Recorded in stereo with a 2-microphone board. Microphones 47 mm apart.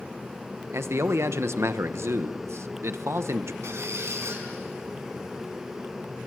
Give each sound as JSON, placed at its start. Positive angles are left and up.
{"t": 0.7, "sound": "a man speaking", "side_deg": -70, "distance_m": 1.0}
{"t": 3.6, "sound": "a squeak", "side_deg": -75, "distance_m": 4.5}